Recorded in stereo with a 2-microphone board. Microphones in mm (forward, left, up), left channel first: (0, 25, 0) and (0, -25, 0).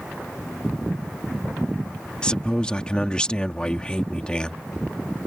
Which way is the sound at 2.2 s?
20° left (ahead or behind).